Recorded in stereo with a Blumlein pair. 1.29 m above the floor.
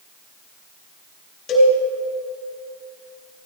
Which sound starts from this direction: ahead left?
A cowbell, at 1.5 s.